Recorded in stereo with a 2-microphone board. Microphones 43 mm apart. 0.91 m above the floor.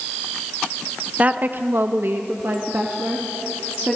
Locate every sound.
1.2 s a woman speaking: 35° right (ahead or behind), 0.6 m; by 4.0 s 40° right (ahead or behind), 1.7 m